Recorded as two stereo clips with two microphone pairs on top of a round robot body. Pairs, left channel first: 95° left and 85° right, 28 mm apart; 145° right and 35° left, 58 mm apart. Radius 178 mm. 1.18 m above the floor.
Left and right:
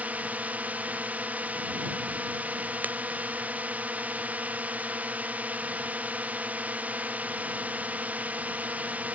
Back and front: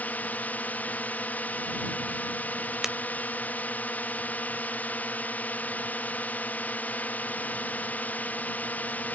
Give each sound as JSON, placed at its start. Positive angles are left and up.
{"t": 0.0, "sound": "a drone", "azimuth_deg": -90}
{"t": 2.8, "sound": "breaking glass", "azimuth_deg": -50}